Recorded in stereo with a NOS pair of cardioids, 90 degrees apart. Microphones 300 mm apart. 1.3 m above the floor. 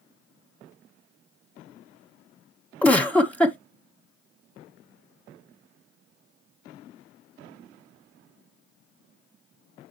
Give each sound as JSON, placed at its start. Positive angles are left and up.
{"t": 2.8, "sound": "a giggle", "azimuth_deg": 5, "distance_m": 1.3}